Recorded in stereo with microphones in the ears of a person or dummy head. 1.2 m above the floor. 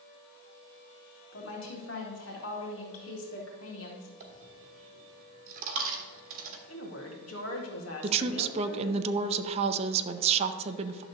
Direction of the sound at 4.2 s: 40° right (ahead or behind).